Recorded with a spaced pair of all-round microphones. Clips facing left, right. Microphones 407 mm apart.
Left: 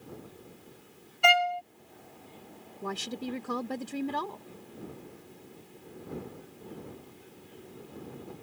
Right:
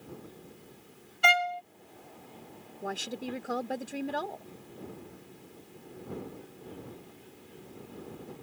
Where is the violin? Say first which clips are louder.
Left 3 dB; 35° right (ahead or behind).